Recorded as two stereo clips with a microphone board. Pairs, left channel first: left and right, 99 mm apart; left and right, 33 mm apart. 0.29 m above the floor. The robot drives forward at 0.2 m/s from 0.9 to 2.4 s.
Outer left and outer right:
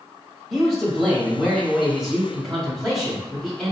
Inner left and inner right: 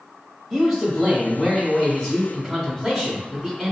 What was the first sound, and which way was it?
A man speaking, centre (ahead or behind).